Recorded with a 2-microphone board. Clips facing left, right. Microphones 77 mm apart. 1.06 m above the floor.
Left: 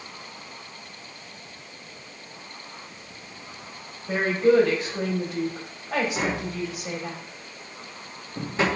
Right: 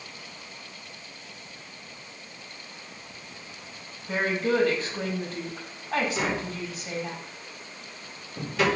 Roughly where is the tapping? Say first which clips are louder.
Left 2 dB; left.